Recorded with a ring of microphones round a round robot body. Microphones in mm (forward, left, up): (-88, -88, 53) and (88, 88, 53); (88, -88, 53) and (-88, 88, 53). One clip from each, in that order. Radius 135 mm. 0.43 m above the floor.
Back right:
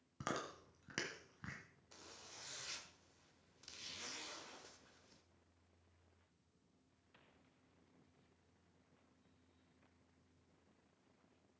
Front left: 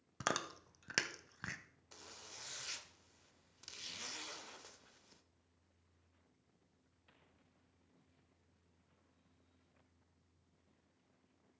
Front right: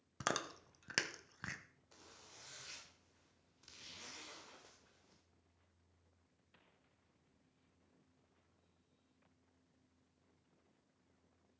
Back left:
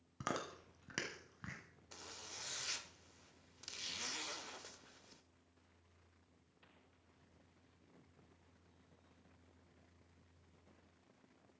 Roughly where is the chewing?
Ahead.